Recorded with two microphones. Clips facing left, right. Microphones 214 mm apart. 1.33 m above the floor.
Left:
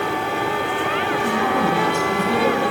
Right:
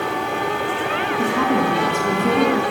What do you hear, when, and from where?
1.2 s a woman speaking: 85° right, 3.5 m